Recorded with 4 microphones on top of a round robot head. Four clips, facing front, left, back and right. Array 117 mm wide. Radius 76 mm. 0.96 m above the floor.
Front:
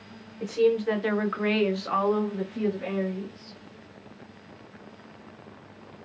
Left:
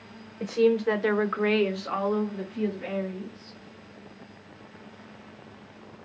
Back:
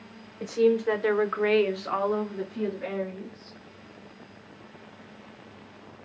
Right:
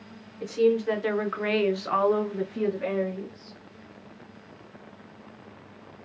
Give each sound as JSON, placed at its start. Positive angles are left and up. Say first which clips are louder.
{"t": 0.4, "sound": "a woman speaking", "louder": "even, even", "azimuth_deg": 105, "distance_m": 0.8}